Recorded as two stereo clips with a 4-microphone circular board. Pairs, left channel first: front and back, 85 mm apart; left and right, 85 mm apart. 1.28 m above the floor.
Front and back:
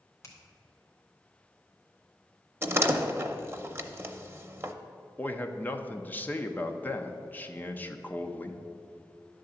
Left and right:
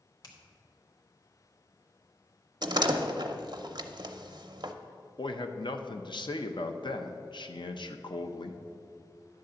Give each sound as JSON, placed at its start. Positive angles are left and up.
{"t": 0.2, "sound": "a finger snap", "azimuth_deg": 55, "distance_m": 1.7}
{"t": 2.6, "sound": "a door slam", "azimuth_deg": -120, "distance_m": 0.6}
{"t": 5.2, "sound": "a man speaking", "azimuth_deg": 70, "distance_m": 0.7}